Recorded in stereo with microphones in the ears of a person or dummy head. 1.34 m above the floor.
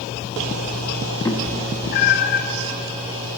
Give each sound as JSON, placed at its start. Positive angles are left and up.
{"t": 1.2, "sound": "a cat meowing", "side_deg": 10, "distance_m": 1.2}